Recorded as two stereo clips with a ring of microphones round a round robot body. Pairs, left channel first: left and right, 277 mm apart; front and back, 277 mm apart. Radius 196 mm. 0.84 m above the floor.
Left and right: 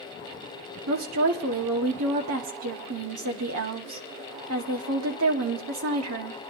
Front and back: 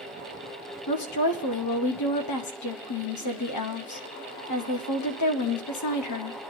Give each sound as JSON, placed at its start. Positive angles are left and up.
{"t": 0.9, "sound": "a woman speaking", "azimuth_deg": -40, "distance_m": 1.1}